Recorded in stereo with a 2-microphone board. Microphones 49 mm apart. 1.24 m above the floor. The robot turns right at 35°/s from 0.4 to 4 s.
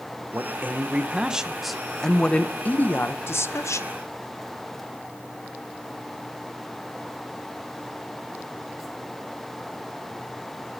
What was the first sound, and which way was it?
A man speaking, 45° right.